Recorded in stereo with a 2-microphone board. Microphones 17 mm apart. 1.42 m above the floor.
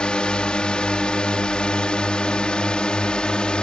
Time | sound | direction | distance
0.0 | a drone | 70° left (ahead or behind) | ?